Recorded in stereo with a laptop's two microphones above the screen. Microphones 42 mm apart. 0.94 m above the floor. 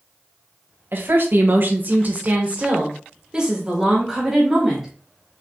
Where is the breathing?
No breathing in this recording.